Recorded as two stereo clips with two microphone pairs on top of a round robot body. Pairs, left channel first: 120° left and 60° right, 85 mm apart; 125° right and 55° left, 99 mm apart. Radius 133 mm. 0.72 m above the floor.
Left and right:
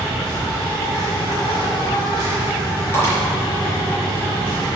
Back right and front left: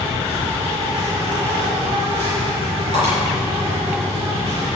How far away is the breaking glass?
About 4 m.